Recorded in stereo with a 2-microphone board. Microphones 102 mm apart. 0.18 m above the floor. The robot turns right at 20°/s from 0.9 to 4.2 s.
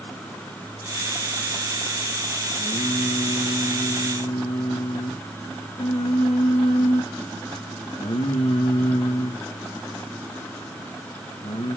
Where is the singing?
65° left, 3.5 m; by 11.8 s 95° left, 3.5 m.